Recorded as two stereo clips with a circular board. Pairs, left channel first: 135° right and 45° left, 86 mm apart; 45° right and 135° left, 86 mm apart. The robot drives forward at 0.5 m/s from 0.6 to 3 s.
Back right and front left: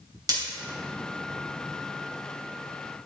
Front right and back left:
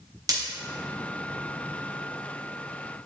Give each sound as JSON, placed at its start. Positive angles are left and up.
{"t": 0.3, "sound": "breaking glass", "azimuth_deg": 90, "distance_m": 3.0}